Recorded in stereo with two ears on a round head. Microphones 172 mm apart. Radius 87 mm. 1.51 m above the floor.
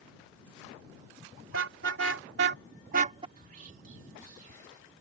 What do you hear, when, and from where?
1.5 s a car horn: 75° right (ahead or behind); by 3.3 s 25° right (ahead or behind)
3.4 s whispering: 45° right (ahead or behind)